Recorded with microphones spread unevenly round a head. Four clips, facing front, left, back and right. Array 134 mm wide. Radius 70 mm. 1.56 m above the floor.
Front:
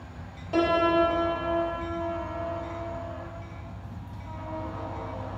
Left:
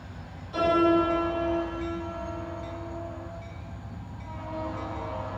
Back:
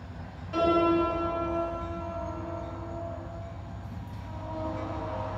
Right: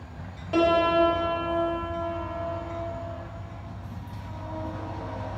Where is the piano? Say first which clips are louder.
Right 1 dB, front 1 dB; 60° right, 2 m.